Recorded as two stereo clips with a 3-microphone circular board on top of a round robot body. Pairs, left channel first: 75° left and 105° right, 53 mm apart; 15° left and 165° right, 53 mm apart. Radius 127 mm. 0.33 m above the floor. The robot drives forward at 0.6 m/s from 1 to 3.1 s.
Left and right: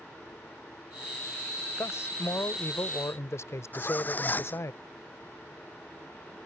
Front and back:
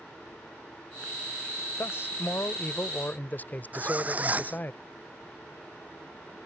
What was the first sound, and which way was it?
A man speaking, 50° left.